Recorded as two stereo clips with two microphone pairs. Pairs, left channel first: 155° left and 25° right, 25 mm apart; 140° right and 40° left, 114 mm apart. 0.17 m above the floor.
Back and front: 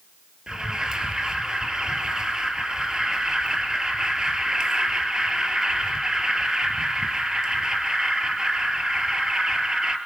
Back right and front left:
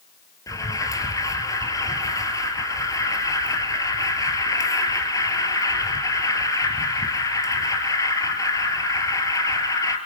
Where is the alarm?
85° right, 3 m.